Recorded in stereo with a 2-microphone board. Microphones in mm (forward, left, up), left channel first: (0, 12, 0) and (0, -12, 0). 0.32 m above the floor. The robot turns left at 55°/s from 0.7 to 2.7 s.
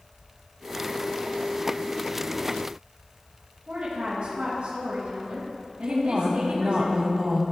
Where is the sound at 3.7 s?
50° right (ahead or behind), 2.5 m.